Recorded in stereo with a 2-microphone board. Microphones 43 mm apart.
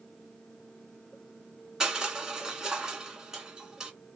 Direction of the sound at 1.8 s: 15° right (ahead or behind).